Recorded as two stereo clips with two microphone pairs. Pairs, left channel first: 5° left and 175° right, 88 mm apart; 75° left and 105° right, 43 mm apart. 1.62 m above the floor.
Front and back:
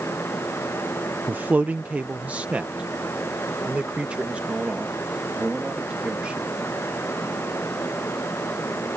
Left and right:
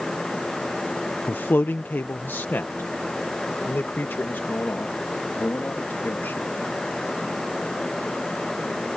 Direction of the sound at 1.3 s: 115° left.